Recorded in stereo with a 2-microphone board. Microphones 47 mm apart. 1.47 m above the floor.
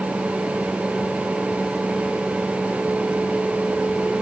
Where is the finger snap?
I don't hear a finger snap.